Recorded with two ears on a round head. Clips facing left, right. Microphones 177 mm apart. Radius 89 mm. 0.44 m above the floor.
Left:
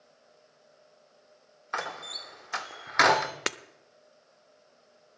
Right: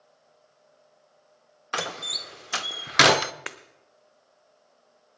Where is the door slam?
40° right (ahead or behind), 0.5 m.